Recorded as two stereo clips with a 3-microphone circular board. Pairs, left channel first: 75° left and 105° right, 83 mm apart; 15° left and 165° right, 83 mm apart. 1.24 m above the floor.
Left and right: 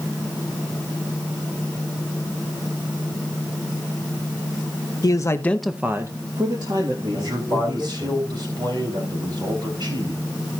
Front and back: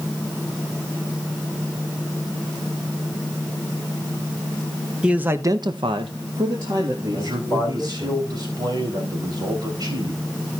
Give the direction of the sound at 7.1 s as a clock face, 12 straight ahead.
4 o'clock.